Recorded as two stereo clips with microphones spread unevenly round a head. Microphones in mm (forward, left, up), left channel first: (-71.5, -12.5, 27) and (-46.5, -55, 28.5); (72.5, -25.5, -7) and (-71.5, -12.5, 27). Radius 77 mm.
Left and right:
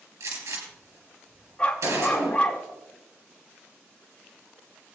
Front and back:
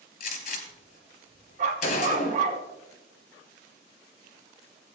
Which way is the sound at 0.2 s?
25° right.